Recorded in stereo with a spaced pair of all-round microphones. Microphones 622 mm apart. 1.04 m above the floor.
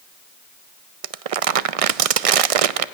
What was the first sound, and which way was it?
Crumpling, 70° right (ahead or behind).